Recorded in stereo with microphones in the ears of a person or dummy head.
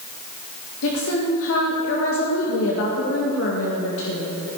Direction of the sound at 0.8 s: 80° left.